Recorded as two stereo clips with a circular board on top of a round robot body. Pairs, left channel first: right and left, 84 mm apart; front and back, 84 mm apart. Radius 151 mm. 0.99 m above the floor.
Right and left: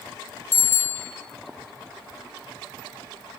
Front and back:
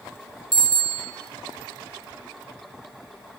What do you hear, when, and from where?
0.5 s a bicycle bell: 155° right, 5.5 m